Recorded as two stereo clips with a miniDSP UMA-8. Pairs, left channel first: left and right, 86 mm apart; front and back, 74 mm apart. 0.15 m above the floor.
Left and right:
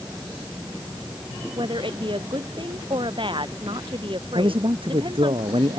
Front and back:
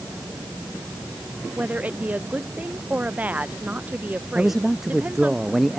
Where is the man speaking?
95° right.